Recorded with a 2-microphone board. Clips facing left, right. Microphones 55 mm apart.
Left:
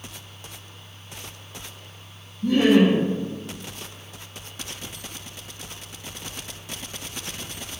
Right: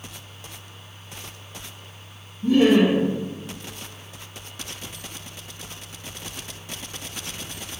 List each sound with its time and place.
2.4 s laughter: 50° left (ahead or behind), 2.0 m